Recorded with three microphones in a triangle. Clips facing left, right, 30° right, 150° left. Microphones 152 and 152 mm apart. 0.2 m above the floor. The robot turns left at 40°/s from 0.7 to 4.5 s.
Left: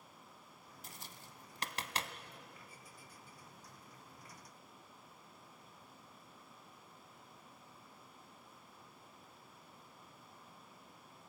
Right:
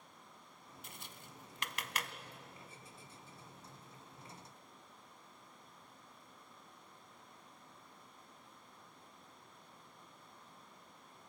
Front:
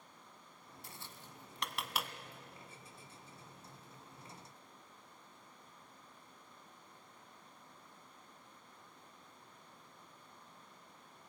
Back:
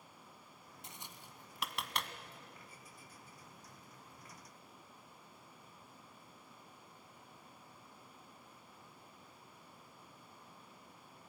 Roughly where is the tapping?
Left.